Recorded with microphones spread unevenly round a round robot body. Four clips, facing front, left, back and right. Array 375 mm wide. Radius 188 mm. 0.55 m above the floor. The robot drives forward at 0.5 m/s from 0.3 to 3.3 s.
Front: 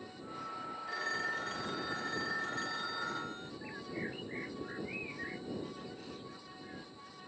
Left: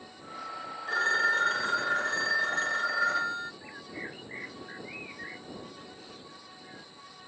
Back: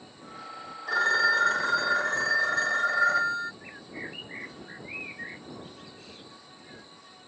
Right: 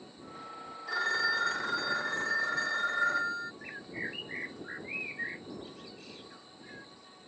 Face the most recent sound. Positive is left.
turn(degrees=-85)